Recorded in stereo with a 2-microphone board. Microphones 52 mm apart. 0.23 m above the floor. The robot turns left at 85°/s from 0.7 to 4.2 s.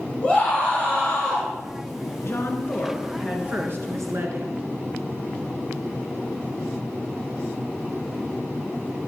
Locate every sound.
0.2 s a scream: 150° left, 3.5 m; by 1.5 s 85° left, 3.5 m
2.2 s a woman speaking: 75° left, 3 m; by 4.6 s 95° right, 3 m